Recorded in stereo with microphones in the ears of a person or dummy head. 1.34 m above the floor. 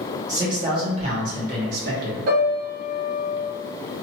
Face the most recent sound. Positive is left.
turn(degrees=-55)  # may be behind; listen again after turning